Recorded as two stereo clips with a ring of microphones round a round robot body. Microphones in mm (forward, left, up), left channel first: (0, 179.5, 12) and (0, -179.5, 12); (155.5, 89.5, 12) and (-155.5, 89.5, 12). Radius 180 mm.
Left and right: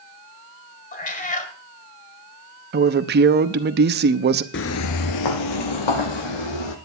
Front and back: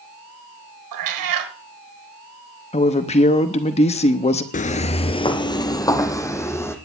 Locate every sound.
0.9 s a cat meowing: 160° left, 1.6 m
2.7 s a woman speaking: 55° right, 0.9 m
4.5 s footsteps: 50° left, 0.8 m; by 6.8 s 80° left, 2.5 m